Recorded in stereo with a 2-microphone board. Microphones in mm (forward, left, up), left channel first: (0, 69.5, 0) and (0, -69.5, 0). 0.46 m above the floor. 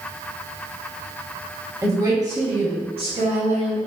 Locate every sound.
1.8 s a woman speaking: 20° right (ahead or behind), 3 m; by 3.9 s 50° right (ahead or behind), 3 m